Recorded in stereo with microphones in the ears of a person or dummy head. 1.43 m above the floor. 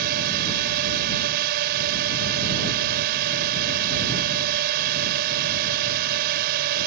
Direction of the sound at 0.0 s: 60° right (ahead or behind).